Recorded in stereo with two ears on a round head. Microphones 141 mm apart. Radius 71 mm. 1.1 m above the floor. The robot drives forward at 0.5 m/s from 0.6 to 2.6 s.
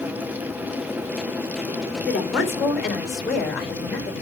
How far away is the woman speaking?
About 3 m.